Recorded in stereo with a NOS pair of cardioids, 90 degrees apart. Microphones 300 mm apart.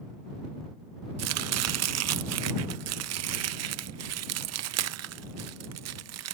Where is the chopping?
60° right.